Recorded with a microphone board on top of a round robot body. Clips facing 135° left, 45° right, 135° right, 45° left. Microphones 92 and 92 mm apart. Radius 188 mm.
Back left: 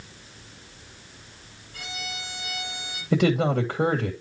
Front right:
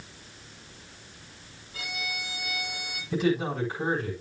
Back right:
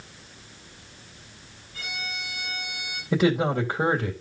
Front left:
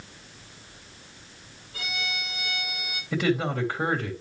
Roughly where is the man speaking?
Behind.